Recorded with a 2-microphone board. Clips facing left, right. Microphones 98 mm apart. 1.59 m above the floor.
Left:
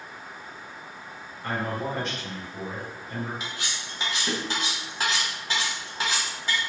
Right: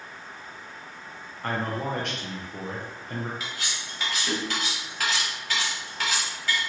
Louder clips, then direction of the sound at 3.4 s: Even; 25° left (ahead or behind).